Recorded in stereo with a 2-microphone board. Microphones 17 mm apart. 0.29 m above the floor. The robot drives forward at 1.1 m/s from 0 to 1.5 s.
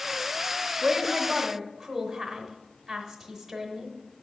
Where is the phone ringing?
I don't hear a phone ringing.